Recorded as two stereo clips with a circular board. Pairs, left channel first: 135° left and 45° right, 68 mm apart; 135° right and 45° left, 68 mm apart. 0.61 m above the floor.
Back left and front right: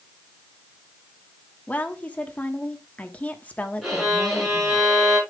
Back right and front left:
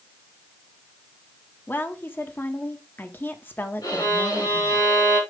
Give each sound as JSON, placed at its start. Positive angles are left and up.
{"t": 1.7, "sound": "a woman speaking", "azimuth_deg": -175, "distance_m": 1.3}
{"t": 3.8, "sound": "a violin", "azimuth_deg": -135, "distance_m": 6.0}